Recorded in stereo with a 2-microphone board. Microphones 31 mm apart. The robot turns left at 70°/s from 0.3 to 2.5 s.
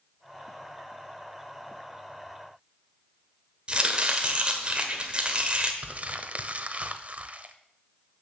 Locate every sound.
3.7 s chopping: 35° right (ahead or behind), 1.5 m
5.8 s crumpling: 40° right (ahead or behind), 0.8 m